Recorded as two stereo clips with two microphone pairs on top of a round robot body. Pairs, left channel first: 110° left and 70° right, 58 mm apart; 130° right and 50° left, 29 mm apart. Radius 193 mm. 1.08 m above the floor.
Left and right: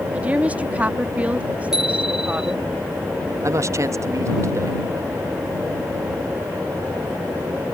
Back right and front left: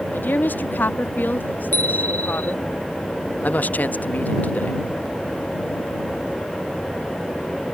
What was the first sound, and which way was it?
A woman speaking, 135° right.